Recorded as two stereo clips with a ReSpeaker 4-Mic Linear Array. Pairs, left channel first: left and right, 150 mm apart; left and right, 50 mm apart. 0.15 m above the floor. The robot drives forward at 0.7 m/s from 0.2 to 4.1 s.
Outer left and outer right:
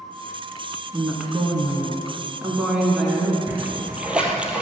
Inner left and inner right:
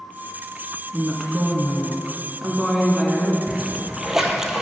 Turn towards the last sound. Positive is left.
turn(degrees=-10)  # may be behind; listen again after turning